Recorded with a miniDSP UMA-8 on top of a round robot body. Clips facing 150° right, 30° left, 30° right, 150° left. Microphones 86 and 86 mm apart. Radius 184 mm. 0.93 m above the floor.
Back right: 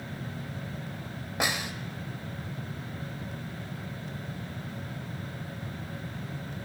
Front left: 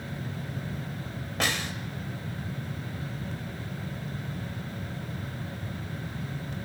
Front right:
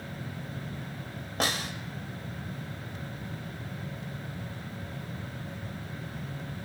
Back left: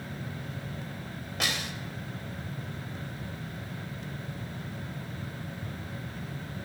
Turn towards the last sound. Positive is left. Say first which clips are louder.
# even, front right 3 dB
turn(degrees=-75)